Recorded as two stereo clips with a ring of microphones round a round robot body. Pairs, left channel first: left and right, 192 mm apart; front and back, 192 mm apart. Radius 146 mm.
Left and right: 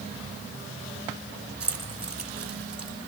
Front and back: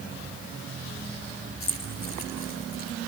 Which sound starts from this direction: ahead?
Keys jangling, at 1.6 s.